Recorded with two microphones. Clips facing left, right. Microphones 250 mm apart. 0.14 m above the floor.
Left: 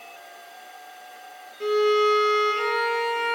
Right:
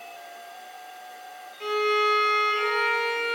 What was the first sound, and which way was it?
A violin, 45° left (ahead or behind).